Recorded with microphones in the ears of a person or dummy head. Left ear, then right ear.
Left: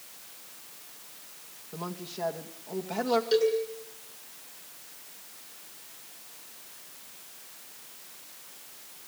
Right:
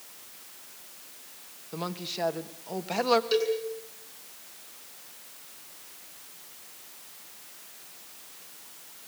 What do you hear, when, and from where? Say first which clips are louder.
1.7 s a woman speaking: right 4 dB; 70° right (ahead or behind), 2.0 m
3.3 s a cowbell: left 2 dB; 10° right (ahead or behind), 7.5 m